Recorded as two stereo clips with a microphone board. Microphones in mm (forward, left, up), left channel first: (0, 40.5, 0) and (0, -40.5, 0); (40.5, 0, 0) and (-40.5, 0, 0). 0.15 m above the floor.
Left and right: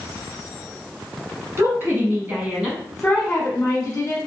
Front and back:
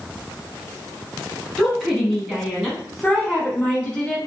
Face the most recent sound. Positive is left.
turn(degrees=90)